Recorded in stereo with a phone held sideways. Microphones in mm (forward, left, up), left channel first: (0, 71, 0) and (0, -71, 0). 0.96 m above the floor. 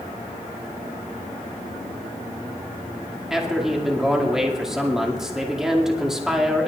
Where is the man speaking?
5° right (ahead or behind), 2 m.